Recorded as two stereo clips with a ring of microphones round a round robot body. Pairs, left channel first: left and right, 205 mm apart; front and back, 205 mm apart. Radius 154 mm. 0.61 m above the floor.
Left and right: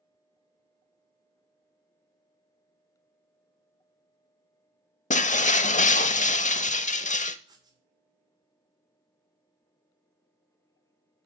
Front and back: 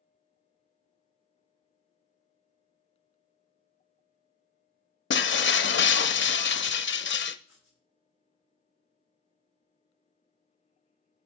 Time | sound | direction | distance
5.1 | breaking glass | 35° left | 0.8 m
7.5 | writing | 20° right | 3 m